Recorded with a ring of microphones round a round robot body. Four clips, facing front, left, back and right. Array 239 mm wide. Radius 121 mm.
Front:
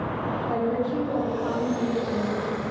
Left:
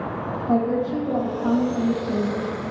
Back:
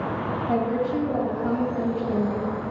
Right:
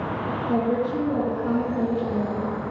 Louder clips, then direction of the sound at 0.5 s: Left 2 dB, back 2 dB; 115° left.